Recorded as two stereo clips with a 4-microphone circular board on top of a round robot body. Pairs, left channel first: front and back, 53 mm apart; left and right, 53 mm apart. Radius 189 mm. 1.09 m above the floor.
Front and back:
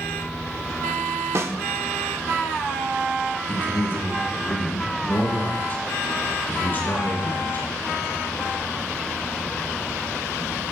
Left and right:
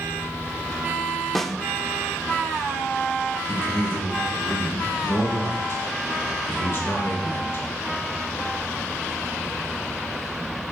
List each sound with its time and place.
1.4 s a snare drum: 175° left, 1.1 m
3.5 s a man speaking: 50° left, 3.5 m